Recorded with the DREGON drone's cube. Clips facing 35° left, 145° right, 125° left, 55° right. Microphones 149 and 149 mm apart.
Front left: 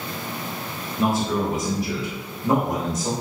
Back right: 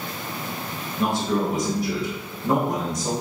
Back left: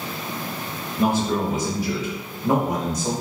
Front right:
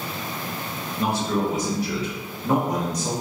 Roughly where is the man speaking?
Behind left.